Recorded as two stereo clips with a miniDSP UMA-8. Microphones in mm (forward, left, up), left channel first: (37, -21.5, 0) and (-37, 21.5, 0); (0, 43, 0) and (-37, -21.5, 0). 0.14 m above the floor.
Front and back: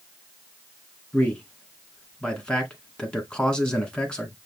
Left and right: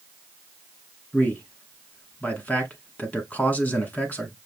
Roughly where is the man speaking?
Ahead left.